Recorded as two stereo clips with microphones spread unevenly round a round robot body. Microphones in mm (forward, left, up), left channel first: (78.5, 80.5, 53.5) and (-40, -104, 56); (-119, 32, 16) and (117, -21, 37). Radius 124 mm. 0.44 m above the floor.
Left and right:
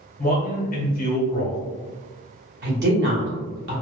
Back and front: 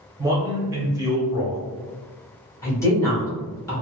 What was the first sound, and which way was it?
A man speaking, 60° left.